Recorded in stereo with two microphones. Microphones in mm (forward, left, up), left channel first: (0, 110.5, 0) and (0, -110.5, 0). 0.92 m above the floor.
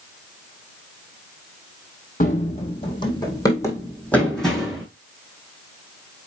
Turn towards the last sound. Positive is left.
turn(degrees=0)  # may be behind; listen again after turning